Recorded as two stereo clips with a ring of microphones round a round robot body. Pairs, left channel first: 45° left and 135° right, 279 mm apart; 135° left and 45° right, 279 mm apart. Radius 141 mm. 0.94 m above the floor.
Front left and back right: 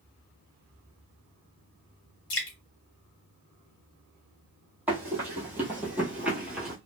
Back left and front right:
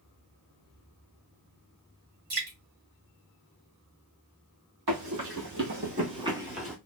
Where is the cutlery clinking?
No cutlery clinking in this recording.